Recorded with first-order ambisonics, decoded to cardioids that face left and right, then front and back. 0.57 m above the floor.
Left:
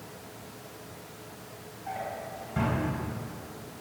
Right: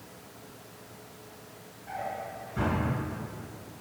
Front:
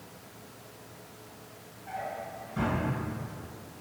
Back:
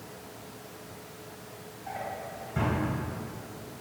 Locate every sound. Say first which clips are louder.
1.9 s a drawer: even, even; 125° left, 1.2 m